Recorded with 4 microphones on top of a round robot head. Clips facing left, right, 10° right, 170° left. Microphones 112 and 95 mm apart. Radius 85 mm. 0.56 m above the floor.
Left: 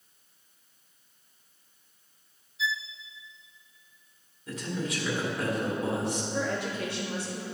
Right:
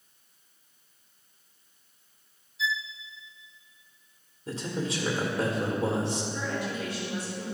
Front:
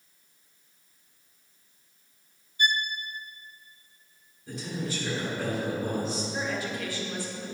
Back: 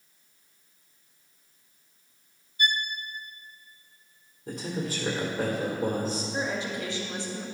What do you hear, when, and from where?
2.6 s a violin: straight ahead, 0.8 m
4.5 s a man speaking: 150° right, 1.8 m
6.3 s a woman speaking: 105° left, 2 m